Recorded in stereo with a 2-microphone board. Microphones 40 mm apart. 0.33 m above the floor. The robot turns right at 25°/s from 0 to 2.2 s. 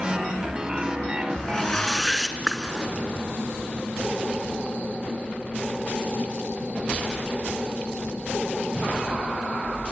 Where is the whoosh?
20° left (ahead or behind), 2.5 m; by 2.9 s centre (ahead or behind), 2.5 m.